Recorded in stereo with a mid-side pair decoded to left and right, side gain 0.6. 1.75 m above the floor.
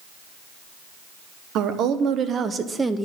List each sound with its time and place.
1.6 s a woman speaking: 60° right, 1.1 m; by 3.1 s 5° right, 0.7 m